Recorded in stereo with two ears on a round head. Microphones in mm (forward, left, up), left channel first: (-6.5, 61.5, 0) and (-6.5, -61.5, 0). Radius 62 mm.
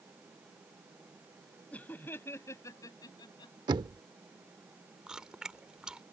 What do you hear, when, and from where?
1.7 s laughter: 10° left (ahead or behind); by 3.5 s 30° left (ahead or behind)
3.7 s knocking: 30° right (ahead or behind)
5.1 s chewing: 5° right (ahead or behind)